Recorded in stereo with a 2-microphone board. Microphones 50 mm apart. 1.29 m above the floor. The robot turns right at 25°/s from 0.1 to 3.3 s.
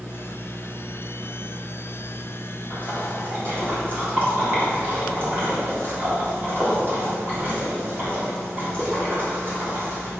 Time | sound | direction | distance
2.7 | a splash | 25° right (ahead or behind) | 4 m